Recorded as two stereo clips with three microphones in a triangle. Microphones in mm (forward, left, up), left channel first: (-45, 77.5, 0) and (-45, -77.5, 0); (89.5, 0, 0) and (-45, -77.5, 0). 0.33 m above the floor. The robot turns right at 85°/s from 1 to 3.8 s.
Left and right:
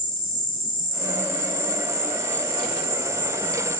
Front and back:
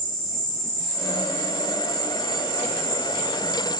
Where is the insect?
115° left, 1.2 m; by 3.8 s 5° right, 1.2 m.